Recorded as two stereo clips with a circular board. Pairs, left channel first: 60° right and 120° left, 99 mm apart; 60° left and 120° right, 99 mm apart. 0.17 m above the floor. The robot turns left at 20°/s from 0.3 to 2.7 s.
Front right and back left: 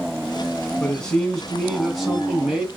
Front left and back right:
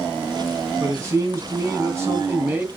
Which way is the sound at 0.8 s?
130° right.